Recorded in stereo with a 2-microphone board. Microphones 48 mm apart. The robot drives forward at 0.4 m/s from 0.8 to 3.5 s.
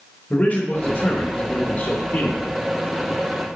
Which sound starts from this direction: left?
A man speaking, at 0.3 s.